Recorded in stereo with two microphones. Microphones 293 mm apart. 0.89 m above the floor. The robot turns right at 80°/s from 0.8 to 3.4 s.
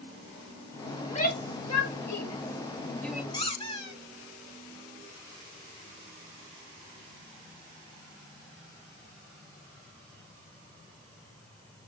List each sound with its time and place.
1.0 s a shout: 10° left (ahead or behind), 1.1 m; by 3.2 s 10° right (ahead or behind), 1.1 m
3.3 s a squeak: 15° left (ahead or behind), 1.2 m; by 4.0 s 20° left (ahead or behind), 1.2 m